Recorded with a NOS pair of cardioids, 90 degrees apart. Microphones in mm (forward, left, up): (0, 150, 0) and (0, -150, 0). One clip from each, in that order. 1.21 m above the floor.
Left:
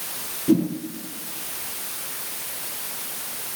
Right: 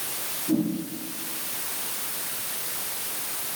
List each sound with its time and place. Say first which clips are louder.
0.5 s a whoosh: left 5 dB; 70° left, 5.5 m